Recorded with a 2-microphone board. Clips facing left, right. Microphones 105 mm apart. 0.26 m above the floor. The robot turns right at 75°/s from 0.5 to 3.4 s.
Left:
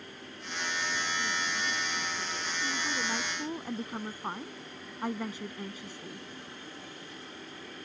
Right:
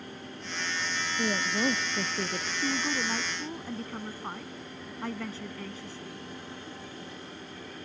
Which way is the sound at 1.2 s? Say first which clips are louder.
Right 6 dB; 135° right.